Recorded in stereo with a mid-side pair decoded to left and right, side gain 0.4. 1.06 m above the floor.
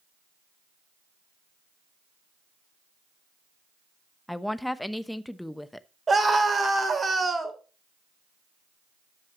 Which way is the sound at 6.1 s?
35° right.